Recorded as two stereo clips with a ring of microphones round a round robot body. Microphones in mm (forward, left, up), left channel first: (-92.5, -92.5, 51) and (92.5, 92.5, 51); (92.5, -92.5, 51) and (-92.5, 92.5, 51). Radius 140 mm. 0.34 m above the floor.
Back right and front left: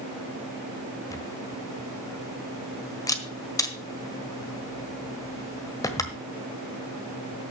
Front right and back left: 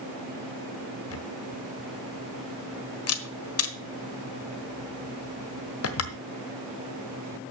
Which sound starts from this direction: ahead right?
A camera shutter, at 1.1 s.